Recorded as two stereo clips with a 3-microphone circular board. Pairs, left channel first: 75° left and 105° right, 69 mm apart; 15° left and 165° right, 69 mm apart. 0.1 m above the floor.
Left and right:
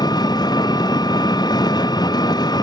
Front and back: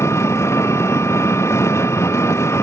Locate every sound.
0.0 s an engine running: 65° left